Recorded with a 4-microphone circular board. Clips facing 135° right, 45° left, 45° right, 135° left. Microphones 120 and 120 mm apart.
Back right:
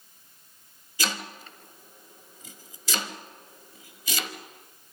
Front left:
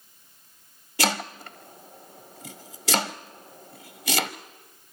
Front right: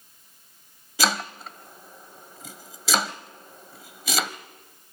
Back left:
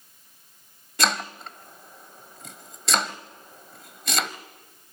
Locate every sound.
1.0 s chopping: 45° left, 0.9 m